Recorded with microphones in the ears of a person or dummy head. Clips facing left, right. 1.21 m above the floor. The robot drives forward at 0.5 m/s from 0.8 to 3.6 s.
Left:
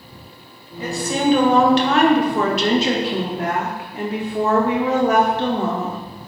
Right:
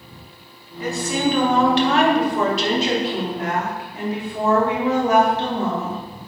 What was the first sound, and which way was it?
A woman speaking, 25° left (ahead or behind).